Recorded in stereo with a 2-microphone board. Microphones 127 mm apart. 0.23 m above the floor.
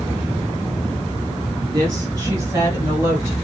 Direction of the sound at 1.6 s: 30° right (ahead or behind).